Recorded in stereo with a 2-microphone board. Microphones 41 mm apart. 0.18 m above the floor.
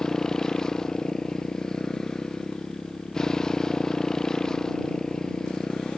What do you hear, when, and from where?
0.0 s a motorcycle: 10° left (ahead or behind)